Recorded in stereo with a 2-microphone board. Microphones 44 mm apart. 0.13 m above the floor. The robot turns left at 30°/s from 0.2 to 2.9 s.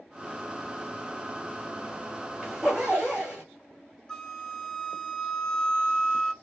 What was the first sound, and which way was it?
A zipper, 5° right (ahead or behind).